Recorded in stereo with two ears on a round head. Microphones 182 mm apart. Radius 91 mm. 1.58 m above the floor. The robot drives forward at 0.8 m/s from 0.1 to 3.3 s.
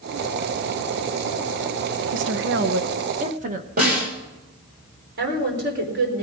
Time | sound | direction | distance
2.1 | a woman speaking | 60° right (ahead or behind) | 0.9 m
3.8 | a snare drum | 45° right (ahead or behind) | 5.5 m
5.2 | a woman speaking | 55° right (ahead or behind) | 4.5 m